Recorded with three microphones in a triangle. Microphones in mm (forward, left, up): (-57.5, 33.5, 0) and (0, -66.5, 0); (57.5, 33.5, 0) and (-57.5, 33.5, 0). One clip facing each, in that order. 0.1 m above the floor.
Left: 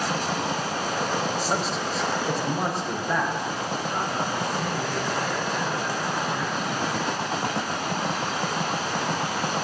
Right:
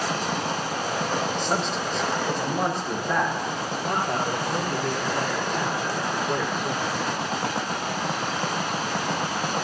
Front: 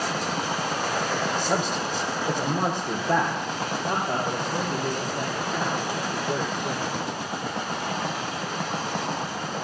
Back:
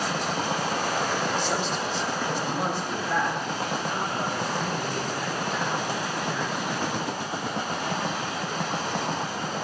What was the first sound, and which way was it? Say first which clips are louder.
A man speaking: even, front 2 dB; 35° left.